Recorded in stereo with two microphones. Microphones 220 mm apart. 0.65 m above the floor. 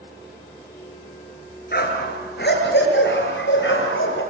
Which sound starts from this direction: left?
A dog barking, at 1.7 s.